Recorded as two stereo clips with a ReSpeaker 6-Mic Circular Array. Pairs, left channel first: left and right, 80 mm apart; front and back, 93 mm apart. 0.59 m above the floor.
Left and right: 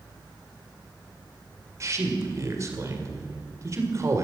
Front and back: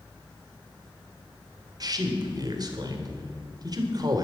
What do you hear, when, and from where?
1.8 s a man speaking: 140° right, 2.0 m